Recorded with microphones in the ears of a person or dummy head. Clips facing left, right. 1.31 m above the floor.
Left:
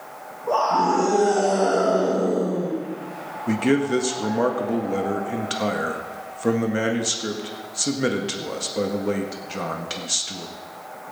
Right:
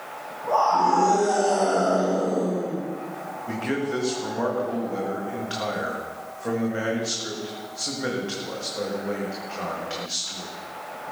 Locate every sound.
0.5 s a scream: 40° left (ahead or behind), 2.5 m
3.5 s a man speaking: 50° left (ahead or behind), 1.7 m